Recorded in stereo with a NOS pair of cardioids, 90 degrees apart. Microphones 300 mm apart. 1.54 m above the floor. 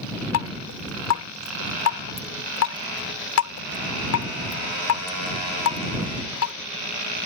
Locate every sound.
0.3 s dripping: 65° left